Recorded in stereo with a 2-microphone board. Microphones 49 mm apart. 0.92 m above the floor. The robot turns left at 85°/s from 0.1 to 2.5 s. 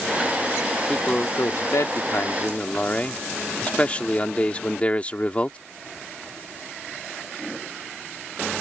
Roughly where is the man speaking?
Behind.